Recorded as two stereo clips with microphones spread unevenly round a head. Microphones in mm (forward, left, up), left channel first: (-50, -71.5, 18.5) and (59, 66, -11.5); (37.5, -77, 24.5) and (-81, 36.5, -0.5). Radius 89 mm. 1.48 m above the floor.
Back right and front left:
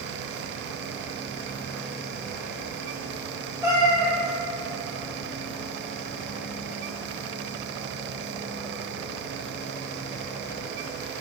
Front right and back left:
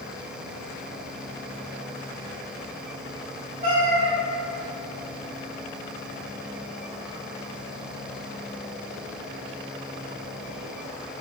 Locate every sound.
3.6 s a cat meowing: 130° left, 1.1 m